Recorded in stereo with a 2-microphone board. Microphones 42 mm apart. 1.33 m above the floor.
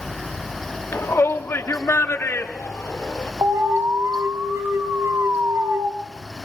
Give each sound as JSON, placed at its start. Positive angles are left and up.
{"t": 0.9, "sound": "a shout", "side_deg": 80, "distance_m": 2.0}
{"t": 3.4, "sound": "an alarm", "side_deg": -80, "distance_m": 1.9}